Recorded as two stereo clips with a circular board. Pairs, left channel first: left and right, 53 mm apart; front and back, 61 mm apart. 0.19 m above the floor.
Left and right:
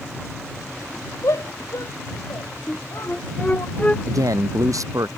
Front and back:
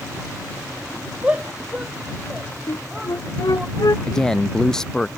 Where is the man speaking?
80° right.